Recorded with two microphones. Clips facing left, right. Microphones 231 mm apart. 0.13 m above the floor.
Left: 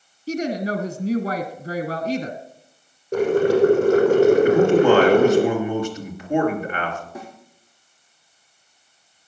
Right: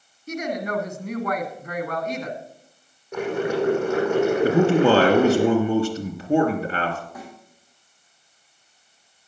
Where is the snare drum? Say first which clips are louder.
Left 2 dB; 25° left (ahead or behind), 5 m.